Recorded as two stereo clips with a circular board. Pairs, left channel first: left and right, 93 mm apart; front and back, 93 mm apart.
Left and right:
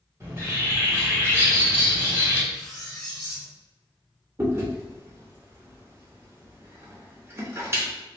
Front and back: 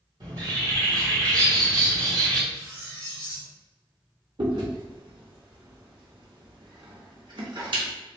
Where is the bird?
150° right, 1.6 m.